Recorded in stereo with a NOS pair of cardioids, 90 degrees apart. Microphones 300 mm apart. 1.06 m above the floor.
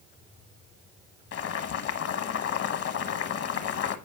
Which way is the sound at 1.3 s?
55° left.